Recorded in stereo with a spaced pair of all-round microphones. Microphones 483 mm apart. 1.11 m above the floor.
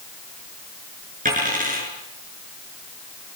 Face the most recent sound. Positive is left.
turn(degrees=-15)  # may be behind; listen again after turning